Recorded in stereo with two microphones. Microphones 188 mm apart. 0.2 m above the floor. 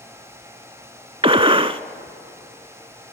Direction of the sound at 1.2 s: 30° right (ahead or behind).